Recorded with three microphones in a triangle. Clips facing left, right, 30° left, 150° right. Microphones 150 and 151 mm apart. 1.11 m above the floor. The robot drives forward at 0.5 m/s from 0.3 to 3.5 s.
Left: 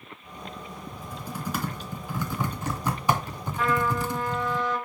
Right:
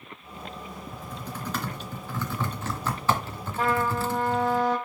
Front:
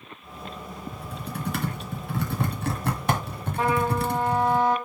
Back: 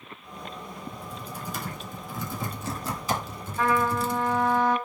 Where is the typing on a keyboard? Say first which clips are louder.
Left 2 dB, front 3 dB; 10° left, 3 m; by 4.6 s 20° left, 1.9 m.